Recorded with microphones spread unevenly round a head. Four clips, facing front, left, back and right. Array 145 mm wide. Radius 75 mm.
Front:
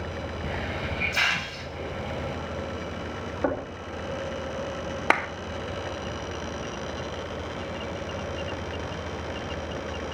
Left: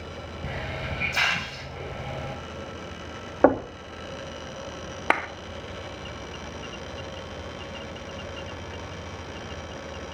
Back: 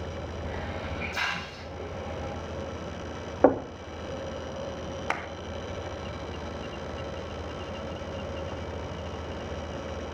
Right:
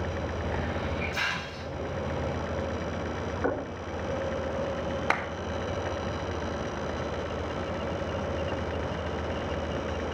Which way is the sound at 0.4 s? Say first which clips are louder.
Left 1 dB, front 4 dB; 55° left.